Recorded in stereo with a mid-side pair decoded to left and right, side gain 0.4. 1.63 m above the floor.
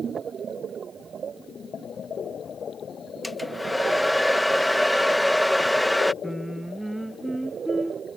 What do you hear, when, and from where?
3.2 s a hair dryer: 5° left
6.2 s singing: 10° right